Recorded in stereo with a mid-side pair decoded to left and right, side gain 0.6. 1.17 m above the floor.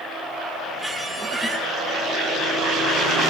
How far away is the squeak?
About 6.5 m.